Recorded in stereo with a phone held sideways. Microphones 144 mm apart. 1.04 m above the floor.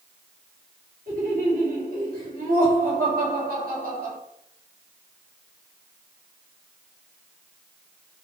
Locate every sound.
1.1 s laughter: 80° right, 2.0 m